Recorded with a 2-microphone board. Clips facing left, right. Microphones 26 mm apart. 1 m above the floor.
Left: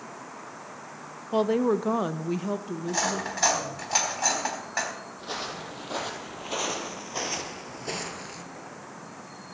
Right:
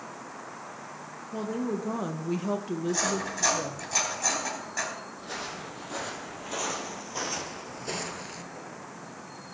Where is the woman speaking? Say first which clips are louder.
Left 8 dB; 65° left (ahead or behind), 0.6 m; by 3.8 s 40° right (ahead or behind), 1.0 m.